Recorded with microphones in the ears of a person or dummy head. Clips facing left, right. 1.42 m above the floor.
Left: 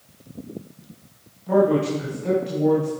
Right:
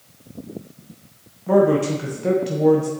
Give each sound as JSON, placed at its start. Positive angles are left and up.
{"t": 1.5, "sound": "a man speaking", "side_deg": -60, "distance_m": 0.9}